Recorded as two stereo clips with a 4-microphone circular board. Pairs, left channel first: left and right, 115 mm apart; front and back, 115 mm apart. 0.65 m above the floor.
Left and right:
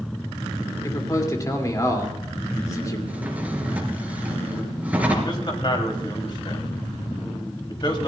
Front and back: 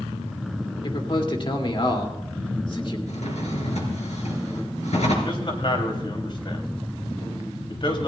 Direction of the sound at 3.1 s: 15° right.